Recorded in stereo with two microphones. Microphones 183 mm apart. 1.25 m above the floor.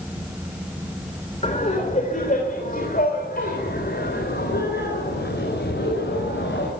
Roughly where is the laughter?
Left.